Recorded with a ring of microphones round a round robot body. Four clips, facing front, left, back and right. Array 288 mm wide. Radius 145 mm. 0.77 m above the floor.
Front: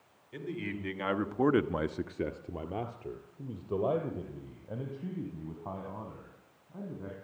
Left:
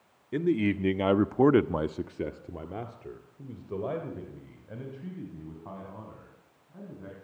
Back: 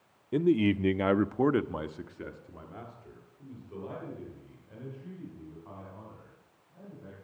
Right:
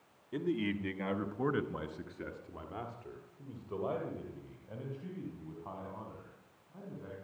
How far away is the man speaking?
About 1.5 m.